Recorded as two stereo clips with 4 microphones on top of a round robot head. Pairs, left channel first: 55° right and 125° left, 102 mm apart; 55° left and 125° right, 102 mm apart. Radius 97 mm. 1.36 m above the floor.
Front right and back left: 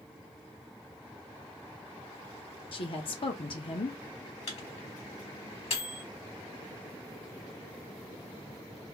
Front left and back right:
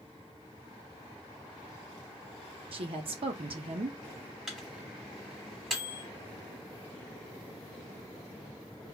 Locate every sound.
2.7 s a woman speaking: 90° right, 0.7 m
4.5 s a microwave: 40° right, 1.2 m